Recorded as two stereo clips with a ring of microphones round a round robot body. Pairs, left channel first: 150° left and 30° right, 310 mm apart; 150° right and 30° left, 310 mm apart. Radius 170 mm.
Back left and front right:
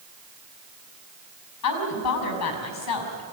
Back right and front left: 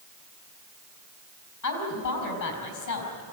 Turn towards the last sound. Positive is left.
turn(degrees=-175)